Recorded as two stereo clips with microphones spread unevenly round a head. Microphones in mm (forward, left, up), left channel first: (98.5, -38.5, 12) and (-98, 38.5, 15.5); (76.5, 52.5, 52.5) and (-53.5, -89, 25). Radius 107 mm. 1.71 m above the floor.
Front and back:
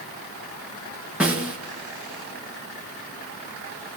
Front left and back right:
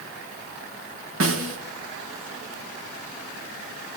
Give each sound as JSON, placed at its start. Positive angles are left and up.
{"t": 1.2, "sound": "a snare drum", "azimuth_deg": -115, "distance_m": 3.0}